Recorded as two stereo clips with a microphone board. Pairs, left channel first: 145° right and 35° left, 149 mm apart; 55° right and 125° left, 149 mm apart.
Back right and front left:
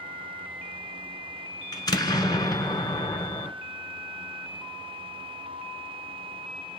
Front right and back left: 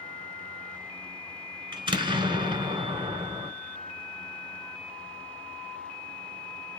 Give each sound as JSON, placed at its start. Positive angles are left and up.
{"t": 1.7, "sound": "an explosion", "azimuth_deg": 165, "distance_m": 1.1}